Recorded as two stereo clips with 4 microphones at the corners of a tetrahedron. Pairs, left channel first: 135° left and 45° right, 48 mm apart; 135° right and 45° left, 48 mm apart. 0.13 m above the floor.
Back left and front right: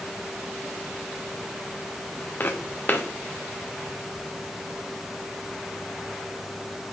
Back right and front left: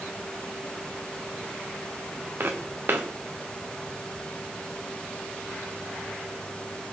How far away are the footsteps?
About 1.0 m.